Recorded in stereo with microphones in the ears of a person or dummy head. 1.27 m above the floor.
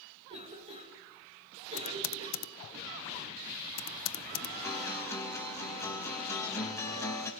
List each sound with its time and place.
0.3 s a cough: 30° right (ahead or behind), 5 m
1.8 s typing on a keyboard: 85° left, 0.7 m
4.6 s a guitar: 20° left (ahead or behind), 1.9 m